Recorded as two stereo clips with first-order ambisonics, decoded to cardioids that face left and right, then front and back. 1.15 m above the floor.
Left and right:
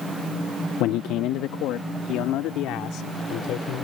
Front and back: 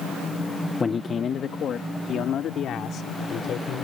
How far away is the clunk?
No clunk in this recording.